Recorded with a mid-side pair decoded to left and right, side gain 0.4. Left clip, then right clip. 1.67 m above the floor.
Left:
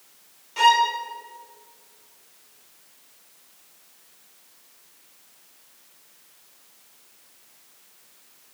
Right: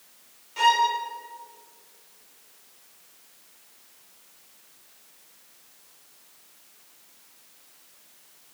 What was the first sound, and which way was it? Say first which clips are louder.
A violin: left 3 dB; 30° left.